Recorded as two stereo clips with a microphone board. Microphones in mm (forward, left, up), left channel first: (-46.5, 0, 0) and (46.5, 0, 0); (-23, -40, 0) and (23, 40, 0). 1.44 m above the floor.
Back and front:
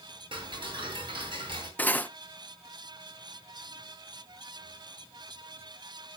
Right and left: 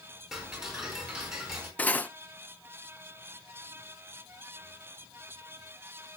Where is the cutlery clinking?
150° right, 0.5 m.